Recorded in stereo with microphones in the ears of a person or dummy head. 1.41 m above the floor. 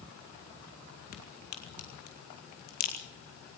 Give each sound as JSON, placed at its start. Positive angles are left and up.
{"t": 1.1, "sound": "a crack", "side_deg": 60, "distance_m": 3.0}